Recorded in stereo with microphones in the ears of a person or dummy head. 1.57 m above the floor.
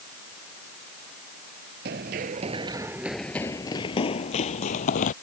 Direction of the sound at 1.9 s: 35° right (ahead or behind).